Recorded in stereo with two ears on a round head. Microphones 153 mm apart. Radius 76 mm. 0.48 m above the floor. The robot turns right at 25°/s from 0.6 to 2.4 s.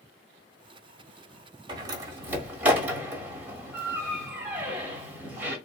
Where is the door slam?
25° right (ahead or behind), 1.4 m; by 5.6 s 10° right (ahead or behind), 1.4 m.